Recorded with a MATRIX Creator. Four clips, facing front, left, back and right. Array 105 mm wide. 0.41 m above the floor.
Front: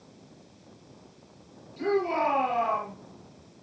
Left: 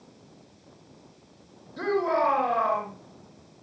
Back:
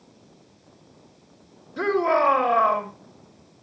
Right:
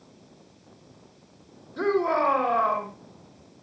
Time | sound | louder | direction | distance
1.8 | a shout | right 1 dB, back 5 dB | 160° right | 4.5 m